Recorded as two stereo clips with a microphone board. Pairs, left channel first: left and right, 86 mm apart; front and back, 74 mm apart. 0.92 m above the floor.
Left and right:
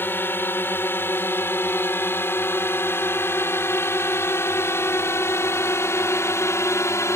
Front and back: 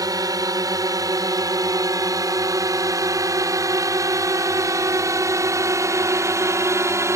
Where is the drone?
150° left; by 7.2 s 140° left.